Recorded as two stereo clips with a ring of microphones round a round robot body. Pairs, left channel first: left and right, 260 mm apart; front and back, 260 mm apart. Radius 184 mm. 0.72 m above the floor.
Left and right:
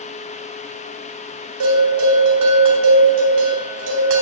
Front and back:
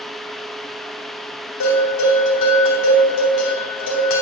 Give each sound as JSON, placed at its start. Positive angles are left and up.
{"t": 1.6, "sound": "a bell", "azimuth_deg": -45, "distance_m": 2.0}